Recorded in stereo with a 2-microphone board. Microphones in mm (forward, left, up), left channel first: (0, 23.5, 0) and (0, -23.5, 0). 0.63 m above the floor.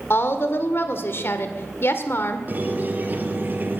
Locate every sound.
0.1 s a woman speaking: 55° left (ahead or behind), 1.8 m
2.5 s a squeak: 40° right (ahead or behind), 1.6 m